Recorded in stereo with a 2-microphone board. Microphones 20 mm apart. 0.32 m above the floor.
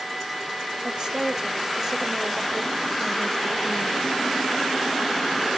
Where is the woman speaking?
40° right (ahead or behind), 1.7 m; by 4.2 s 40° left (ahead or behind), 1.6 m.